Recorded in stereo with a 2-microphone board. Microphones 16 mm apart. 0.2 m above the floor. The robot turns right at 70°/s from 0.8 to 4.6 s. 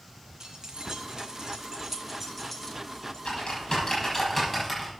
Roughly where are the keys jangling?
Right.